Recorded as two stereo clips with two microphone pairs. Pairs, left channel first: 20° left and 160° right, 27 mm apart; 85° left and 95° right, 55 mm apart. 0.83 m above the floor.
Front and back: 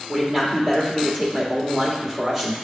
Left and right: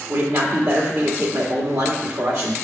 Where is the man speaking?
90° right, 2 m.